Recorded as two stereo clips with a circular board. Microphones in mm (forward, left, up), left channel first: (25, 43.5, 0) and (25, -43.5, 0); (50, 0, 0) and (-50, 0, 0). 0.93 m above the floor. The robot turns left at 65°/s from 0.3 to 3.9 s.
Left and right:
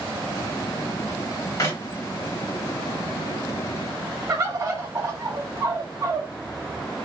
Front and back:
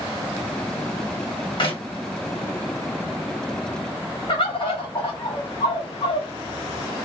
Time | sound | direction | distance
1.6 | a clap | 40° left | 1.5 m
4.3 | a bird | 35° right | 1.5 m